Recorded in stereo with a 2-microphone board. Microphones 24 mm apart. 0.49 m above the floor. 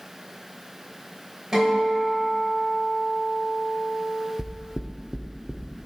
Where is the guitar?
30° right (ahead or behind), 2.5 m.